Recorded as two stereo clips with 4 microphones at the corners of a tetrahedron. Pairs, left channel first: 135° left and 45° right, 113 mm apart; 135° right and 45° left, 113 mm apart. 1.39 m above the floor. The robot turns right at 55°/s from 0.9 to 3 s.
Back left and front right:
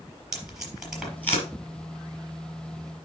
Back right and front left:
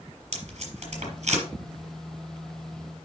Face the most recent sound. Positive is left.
turn(degrees=155)